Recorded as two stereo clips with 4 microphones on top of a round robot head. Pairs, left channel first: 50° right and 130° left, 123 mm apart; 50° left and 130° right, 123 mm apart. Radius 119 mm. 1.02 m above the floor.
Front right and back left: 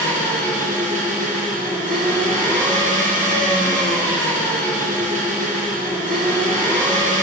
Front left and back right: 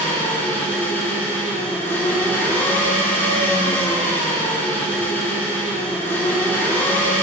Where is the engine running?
125° left, 3 m.